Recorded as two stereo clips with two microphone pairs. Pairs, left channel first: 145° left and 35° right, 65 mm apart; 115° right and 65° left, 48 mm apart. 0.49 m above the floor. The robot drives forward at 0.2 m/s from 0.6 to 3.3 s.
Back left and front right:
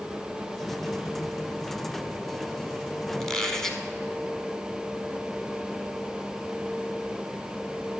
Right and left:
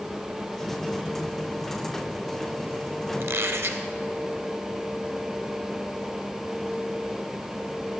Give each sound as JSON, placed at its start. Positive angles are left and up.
{"t": 3.2, "sound": "a squeak", "azimuth_deg": 60, "distance_m": 0.7}